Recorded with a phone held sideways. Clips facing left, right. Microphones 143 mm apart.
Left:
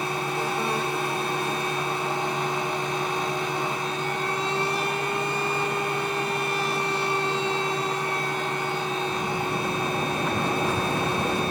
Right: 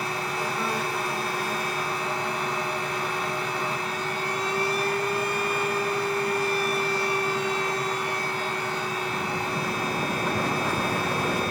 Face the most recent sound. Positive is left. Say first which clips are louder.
# left 2 dB
turn(degrees=20)  # may be behind; listen again after turning